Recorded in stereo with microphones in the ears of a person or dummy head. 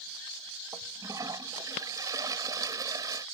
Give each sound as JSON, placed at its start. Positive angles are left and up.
{"t": 0.7, "sound": "a toilet flushing", "side_deg": -20}